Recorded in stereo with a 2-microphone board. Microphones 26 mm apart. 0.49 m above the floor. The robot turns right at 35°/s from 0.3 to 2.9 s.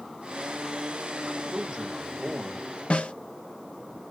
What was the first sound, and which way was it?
A man speaking, 70° right.